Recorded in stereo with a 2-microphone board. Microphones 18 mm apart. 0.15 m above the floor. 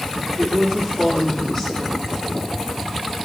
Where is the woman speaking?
30° left (ahead or behind), 6.5 m.